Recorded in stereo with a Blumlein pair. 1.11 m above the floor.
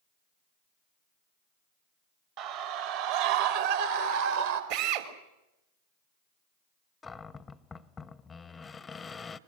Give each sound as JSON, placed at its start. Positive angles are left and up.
{"t": 2.4, "sound": "a scream", "azimuth_deg": -40, "distance_m": 2.5}
{"t": 4.7, "sound": "a drill", "azimuth_deg": -50, "distance_m": 3.0}
{"t": 7.0, "sound": "a cupboard door", "azimuth_deg": 10, "distance_m": 0.9}